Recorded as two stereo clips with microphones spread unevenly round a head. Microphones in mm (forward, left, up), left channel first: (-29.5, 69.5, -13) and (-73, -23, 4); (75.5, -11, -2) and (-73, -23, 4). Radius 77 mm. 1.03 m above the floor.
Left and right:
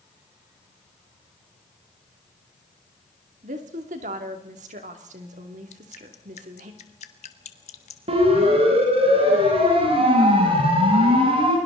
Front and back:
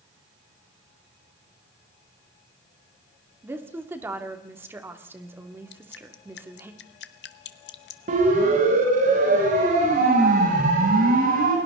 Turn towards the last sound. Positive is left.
turn(degrees=-145)